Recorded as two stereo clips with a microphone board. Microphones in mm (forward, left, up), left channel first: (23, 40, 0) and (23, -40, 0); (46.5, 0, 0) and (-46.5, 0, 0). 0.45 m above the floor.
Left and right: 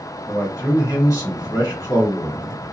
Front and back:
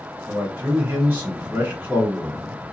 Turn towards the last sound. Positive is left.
turn(degrees=120)